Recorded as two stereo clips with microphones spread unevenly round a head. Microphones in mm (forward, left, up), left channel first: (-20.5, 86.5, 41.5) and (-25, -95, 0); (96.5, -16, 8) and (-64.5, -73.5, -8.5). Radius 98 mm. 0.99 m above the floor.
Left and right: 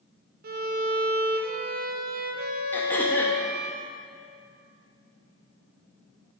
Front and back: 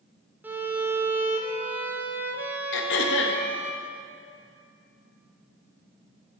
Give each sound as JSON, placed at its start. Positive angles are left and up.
{"t": 0.4, "sound": "a violin", "azimuth_deg": -85, "distance_m": 1.0}
{"t": 2.7, "sound": "throat clearing", "azimuth_deg": 5, "distance_m": 0.8}